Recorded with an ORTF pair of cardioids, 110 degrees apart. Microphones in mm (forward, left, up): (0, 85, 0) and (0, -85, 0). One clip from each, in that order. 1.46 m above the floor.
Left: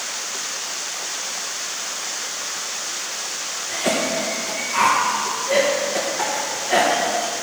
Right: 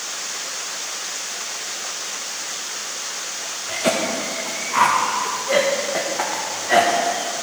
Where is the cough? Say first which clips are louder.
Right 1 dB; 30° right, 1.4 m.